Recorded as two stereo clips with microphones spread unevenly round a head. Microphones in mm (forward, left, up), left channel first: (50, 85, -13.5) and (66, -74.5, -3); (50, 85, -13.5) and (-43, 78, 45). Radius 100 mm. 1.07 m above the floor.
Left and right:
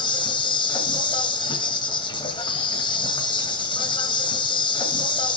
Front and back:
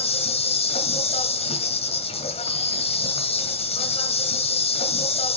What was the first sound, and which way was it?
An insect, 40° left.